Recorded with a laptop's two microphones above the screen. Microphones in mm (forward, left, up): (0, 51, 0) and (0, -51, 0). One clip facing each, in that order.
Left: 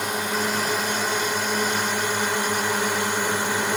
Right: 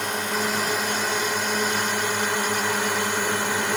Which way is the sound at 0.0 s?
5° left (ahead or behind).